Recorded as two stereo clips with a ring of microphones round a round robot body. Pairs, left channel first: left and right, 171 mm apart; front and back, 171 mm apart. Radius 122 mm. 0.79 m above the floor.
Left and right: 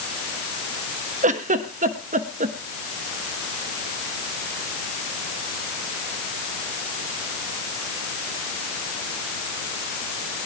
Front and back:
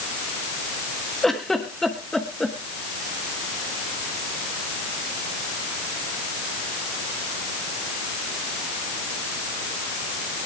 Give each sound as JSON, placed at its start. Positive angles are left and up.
{"t": 1.2, "sound": "a giggle", "azimuth_deg": -85, "distance_m": 1.1}